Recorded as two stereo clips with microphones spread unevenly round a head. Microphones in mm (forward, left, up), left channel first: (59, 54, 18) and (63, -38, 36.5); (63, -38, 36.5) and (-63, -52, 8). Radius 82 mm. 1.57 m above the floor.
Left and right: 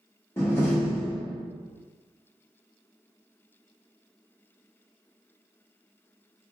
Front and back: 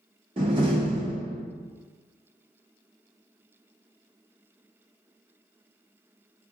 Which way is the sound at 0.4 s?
160° left.